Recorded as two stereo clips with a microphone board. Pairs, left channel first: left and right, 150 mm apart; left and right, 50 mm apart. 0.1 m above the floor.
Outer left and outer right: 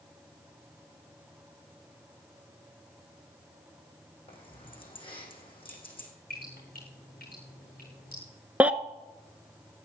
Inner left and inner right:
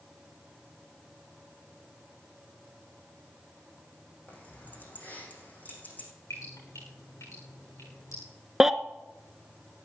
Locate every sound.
4.3 s keys jangling: 35° left (ahead or behind), 4.5 m
6.3 s dripping: 70° left (ahead or behind), 7.5 m
8.6 s a baby crying: 10° right (ahead or behind), 0.7 m